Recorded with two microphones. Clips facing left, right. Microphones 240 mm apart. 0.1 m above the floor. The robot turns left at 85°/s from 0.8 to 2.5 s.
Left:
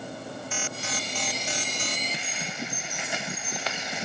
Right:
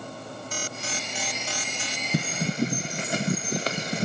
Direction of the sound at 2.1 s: 50° right (ahead or behind).